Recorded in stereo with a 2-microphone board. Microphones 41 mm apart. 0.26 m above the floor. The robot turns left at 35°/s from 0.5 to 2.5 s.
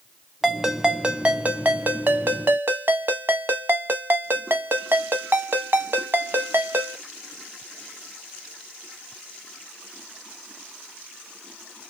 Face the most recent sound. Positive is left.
turn(degrees=-80)